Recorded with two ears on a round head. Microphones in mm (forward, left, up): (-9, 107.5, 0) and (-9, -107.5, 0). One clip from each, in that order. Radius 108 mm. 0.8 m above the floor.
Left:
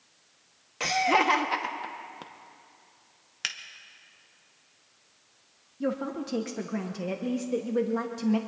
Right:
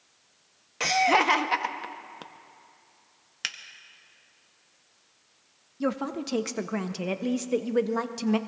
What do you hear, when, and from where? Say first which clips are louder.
0.8 s laughter: right 2 dB; 15° right (ahead or behind), 0.8 m
3.4 s a finger snap: even; 5° right (ahead or behind), 0.6 m
5.8 s a woman speaking: right 1 dB; 30° right (ahead or behind), 0.6 m